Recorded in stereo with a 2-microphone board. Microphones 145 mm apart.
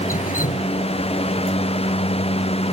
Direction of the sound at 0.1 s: 75° left (ahead or behind).